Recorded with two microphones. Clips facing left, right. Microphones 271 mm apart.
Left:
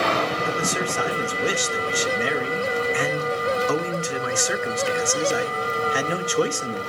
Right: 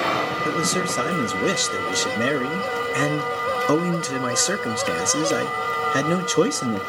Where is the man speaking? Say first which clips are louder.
Right 2 dB; 45° right (ahead or behind), 0.7 m.